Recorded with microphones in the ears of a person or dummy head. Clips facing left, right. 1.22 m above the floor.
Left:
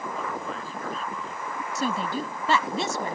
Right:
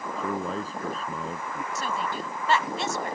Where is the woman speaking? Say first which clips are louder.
Left 5 dB; 70° left (ahead or behind).